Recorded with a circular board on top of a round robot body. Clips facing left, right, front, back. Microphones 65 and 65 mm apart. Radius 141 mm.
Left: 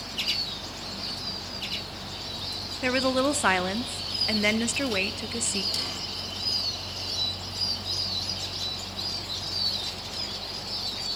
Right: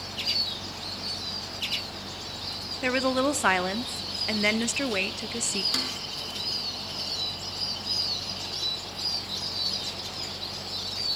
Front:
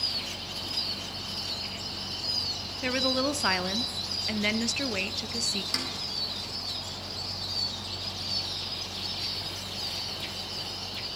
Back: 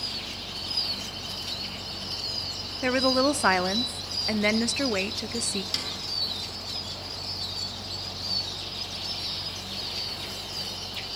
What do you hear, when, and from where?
2.8 s a woman speaking: 175° right, 0.9 m
5.7 s a snare drum: 60° right, 4 m